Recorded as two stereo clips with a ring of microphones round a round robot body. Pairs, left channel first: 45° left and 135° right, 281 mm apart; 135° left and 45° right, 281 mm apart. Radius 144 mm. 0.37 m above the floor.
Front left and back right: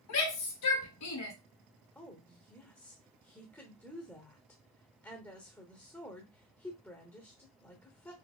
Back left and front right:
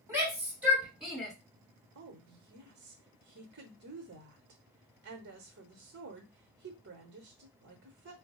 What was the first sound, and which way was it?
A shout, 35° left.